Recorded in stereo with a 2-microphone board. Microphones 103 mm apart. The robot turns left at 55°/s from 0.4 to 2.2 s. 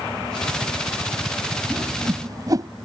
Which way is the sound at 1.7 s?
20° right (ahead or behind).